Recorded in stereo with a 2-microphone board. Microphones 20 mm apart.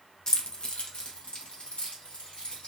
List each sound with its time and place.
0.3 s keys jangling: 30° left (ahead or behind), 0.5 m; by 2.7 s 80° left, 2.5 m